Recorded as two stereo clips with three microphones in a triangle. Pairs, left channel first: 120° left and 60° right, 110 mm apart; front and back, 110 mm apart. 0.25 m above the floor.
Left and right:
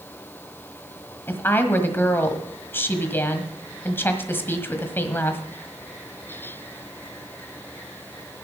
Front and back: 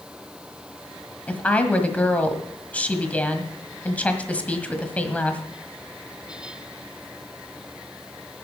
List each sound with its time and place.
1.3 s a woman speaking: 65° left, 1.4 m